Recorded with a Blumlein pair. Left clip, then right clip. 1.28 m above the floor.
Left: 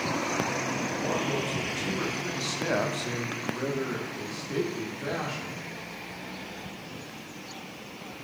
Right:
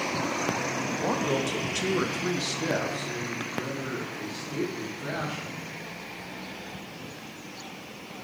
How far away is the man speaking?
About 1.5 m.